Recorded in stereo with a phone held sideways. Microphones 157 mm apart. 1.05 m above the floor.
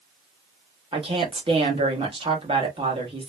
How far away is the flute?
I don't hear a flute.